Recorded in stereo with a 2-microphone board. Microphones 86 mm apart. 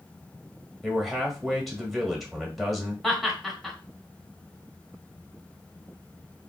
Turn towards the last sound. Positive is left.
turn(degrees=0)  # may be behind; listen again after turning